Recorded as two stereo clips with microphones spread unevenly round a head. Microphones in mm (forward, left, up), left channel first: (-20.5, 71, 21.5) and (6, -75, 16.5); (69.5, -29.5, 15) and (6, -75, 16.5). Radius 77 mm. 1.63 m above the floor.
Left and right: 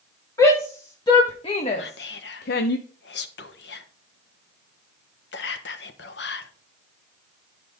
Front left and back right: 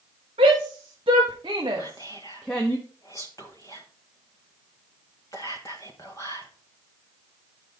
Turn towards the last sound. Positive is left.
turn(degrees=105)